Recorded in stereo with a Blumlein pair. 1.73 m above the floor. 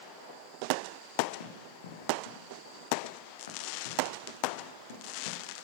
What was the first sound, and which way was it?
Running footsteps, 60° left.